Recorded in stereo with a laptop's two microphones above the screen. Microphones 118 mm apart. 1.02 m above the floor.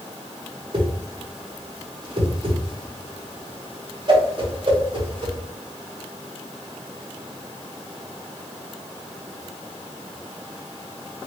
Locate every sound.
0.7 s a whoosh: 45° right (ahead or behind), 0.8 m